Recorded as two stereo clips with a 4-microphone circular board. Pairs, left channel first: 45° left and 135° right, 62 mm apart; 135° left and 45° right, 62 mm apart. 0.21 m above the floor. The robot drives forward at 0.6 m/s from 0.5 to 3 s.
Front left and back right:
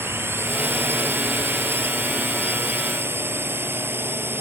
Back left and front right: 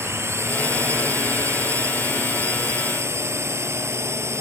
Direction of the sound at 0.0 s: 85° right.